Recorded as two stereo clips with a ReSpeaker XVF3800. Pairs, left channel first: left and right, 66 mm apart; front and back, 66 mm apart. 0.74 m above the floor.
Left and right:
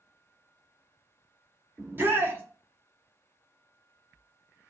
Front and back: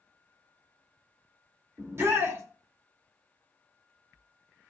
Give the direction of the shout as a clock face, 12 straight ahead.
5 o'clock.